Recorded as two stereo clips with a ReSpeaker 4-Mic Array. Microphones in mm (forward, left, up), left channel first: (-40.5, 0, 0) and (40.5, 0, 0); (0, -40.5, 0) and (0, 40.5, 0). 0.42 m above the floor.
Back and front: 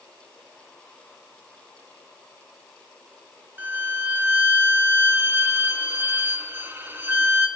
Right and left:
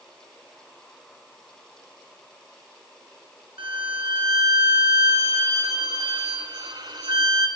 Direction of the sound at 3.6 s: 65° left.